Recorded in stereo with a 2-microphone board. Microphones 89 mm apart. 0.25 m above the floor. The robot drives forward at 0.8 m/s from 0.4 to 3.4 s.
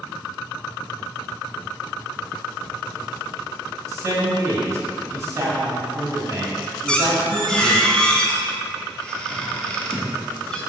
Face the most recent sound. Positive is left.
turn(degrees=10)  # may be behind; listen again after turning